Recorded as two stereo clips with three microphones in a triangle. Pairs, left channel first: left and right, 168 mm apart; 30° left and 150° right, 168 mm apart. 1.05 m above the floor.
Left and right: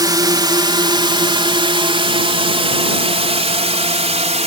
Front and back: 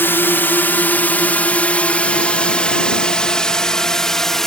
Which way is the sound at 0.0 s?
40° right.